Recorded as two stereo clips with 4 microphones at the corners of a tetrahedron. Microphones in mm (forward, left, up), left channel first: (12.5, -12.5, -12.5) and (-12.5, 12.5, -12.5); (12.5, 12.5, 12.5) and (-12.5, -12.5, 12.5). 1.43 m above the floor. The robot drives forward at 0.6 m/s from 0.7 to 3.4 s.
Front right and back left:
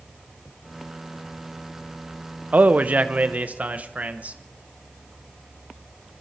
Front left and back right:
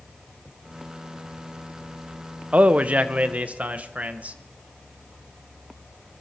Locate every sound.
2.5 s a man speaking: 175° left, 0.6 m